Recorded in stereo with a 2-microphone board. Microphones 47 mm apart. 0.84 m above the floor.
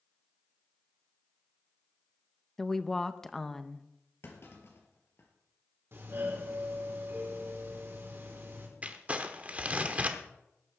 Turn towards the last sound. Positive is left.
turn(degrees=-30)  # may be behind; listen again after turning